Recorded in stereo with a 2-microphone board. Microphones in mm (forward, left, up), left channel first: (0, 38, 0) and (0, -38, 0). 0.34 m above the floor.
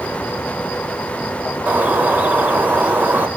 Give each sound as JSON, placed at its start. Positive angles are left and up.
{"t": 1.7, "sound": "a bird", "side_deg": -20, "distance_m": 0.9}